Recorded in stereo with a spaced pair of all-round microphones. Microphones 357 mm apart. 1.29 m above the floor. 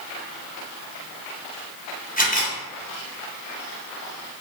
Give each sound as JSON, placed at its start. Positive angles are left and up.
{"t": 2.2, "sound": "a camera shutter", "side_deg": 25, "distance_m": 1.0}